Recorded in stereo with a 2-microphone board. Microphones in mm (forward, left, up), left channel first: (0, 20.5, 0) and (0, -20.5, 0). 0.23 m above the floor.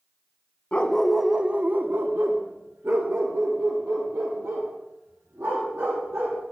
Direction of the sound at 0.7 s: 30° left (ahead or behind).